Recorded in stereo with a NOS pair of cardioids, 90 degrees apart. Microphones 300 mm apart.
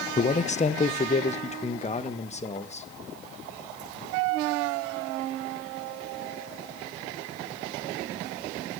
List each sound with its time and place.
0.2 s a man speaking: 25° left, 0.7 m; by 2.9 s 20° left, 2 m